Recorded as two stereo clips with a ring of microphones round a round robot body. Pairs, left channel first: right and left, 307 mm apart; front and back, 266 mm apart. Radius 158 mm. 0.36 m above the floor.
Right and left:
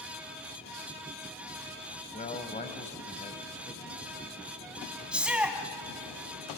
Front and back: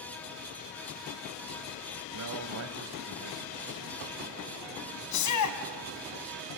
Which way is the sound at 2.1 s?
155° right.